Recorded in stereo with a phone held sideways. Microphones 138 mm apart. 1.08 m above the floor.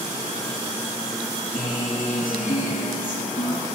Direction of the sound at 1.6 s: 70° left (ahead or behind).